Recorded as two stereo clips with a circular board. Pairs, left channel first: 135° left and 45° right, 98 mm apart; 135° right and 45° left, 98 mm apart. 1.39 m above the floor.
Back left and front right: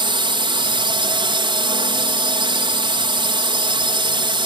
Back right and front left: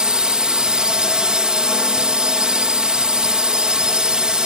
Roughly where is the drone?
Ahead right.